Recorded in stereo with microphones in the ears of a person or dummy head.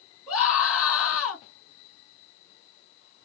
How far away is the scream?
About 1.9 m.